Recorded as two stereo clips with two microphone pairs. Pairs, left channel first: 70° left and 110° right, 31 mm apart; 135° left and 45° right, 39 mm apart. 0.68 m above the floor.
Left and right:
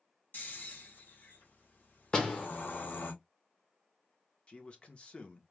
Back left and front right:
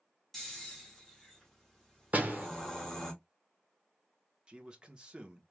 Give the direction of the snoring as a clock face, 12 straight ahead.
10 o'clock.